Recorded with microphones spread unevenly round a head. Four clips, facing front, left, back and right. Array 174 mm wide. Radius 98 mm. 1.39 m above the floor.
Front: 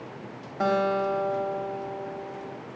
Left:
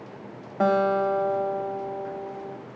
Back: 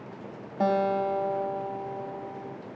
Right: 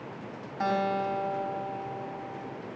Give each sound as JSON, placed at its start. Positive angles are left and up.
{"t": 0.6, "sound": "a guitar", "azimuth_deg": 115, "distance_m": 3.0}